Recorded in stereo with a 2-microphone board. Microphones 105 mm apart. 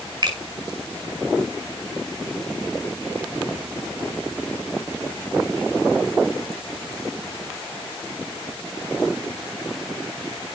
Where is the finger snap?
45° right (ahead or behind), 5.5 m.